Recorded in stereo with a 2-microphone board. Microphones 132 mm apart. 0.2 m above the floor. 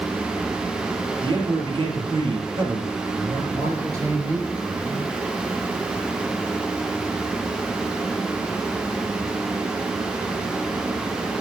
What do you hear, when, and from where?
1.2 s a man speaking: 45° right (ahead or behind), 4.5 m
3.5 s a man speaking: 25° right (ahead or behind), 4 m